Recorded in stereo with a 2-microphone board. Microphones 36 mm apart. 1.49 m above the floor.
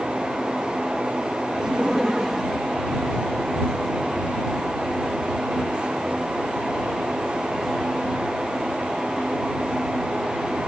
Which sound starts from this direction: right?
Laughter, at 1.6 s.